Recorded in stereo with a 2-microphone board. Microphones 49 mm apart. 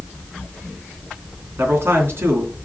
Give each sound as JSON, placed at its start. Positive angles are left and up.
{"t": 1.6, "sound": "a man speaking", "side_deg": -50, "distance_m": 2.5}